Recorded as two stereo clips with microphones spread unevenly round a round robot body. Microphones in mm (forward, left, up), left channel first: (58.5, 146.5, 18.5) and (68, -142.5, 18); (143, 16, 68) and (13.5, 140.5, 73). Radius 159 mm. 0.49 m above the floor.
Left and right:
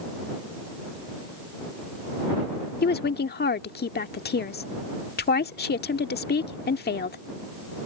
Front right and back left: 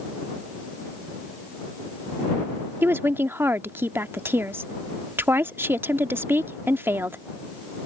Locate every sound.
2.8 s a woman speaking: 60° left